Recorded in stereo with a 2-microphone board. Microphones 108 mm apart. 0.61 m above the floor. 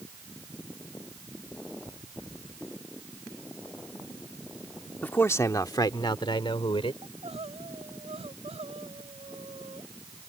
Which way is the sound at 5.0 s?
15° left (ahead or behind).